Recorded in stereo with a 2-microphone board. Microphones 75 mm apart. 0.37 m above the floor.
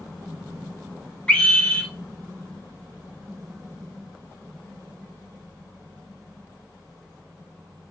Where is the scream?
10° left (ahead or behind), 0.8 m.